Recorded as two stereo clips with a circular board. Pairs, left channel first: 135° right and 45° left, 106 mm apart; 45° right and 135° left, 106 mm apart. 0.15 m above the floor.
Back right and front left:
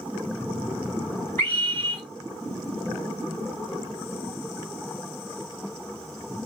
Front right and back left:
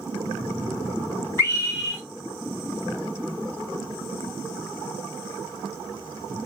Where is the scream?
80° right, 1.9 m.